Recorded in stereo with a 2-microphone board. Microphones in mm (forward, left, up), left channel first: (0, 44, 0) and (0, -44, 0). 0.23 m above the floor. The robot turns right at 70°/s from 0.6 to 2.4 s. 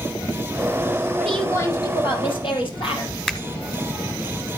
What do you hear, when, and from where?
1.2 s a woman speaking: 5° left, 6 m; by 3.1 s 90° left, 6 m
3.3 s a finger snap: 5° left (ahead or behind), 1.1 m